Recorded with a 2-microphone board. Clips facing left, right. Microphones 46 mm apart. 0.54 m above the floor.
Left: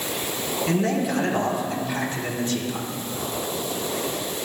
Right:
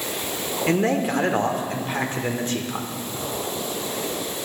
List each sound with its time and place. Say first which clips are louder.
0.7 s a man speaking: right 3 dB; 40° right (ahead or behind), 1.1 m